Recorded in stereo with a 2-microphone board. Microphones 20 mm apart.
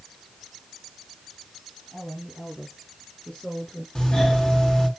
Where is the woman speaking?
70° left (ahead or behind), 6 m; by 3.9 s 60° left (ahead or behind), 4.5 m.